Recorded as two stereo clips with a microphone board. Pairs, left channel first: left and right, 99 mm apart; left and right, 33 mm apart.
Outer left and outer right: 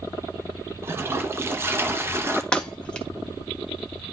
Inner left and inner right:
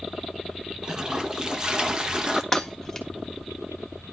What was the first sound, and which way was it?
A toilet flushing, 25° right (ahead or behind).